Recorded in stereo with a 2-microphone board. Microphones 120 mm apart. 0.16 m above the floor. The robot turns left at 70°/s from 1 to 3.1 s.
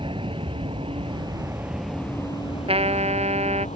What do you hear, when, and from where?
0.0 s an aircraft: 45° right (ahead or behind); by 3.8 s 70° left (ahead or behind)
2.7 s a trumpet: 55° right (ahead or behind); by 3.7 s 65° right (ahead or behind)